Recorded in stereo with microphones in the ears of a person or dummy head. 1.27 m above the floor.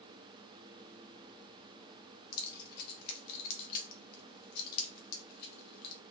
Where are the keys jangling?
60° left (ahead or behind), 0.6 m.